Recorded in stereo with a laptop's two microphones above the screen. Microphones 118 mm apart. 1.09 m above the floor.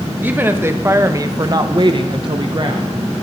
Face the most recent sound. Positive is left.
turn(degrees=-40)  # may be behind; listen again after turning